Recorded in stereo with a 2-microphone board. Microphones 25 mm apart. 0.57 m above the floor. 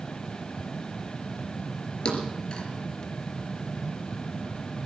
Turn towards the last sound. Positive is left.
turn(degrees=35)  # may be behind; listen again after turning